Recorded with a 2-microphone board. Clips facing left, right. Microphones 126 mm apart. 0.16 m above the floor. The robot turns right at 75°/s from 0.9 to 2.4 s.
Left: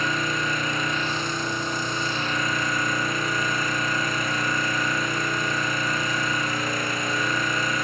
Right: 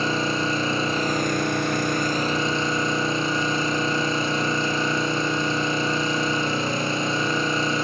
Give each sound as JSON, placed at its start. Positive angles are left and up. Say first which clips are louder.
{"t": 0.0, "sound": "an engine running", "louder": "right 3 dB", "azimuth_deg": -145, "distance_m": 2.5}